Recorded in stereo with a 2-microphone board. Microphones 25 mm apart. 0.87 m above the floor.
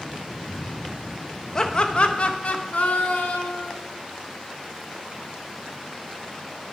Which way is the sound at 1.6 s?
25° left (ahead or behind).